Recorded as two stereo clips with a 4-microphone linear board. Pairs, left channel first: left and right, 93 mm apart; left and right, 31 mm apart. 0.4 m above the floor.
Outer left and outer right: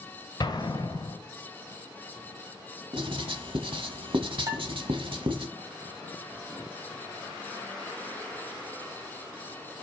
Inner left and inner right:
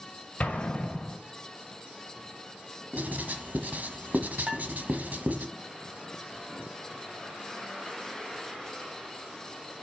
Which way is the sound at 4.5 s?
40° right (ahead or behind).